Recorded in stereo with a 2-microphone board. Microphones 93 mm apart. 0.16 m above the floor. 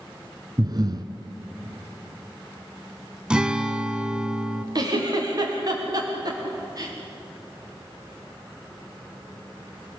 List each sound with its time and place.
0.6 s breathing: 45° right (ahead or behind), 1.3 m
3.3 s a guitar: 10° right (ahead or behind), 0.9 m
4.8 s a giggle: 45° right (ahead or behind), 6.5 m